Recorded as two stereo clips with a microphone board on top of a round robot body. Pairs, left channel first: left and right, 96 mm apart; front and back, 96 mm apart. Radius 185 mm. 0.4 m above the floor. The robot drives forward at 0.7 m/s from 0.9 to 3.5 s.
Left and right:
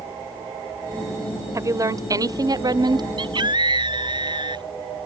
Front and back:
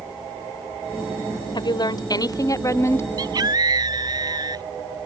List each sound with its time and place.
1.6 s a woman speaking: 35° right; by 3.1 s 60° right
3.2 s a scream: 130° right